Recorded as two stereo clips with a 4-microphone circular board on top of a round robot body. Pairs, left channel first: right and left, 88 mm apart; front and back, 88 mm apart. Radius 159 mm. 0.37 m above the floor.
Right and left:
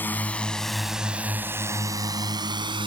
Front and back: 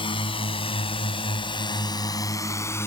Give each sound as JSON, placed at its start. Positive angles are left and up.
{"t": 0.0, "sound": "a drone", "azimuth_deg": -20}